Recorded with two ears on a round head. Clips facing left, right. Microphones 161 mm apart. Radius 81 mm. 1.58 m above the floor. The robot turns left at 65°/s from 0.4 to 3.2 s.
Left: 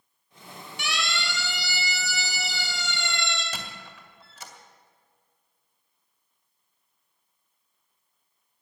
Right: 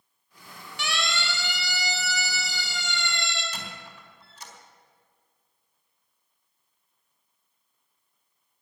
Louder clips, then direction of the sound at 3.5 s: Left 1 dB; 60° left (ahead or behind).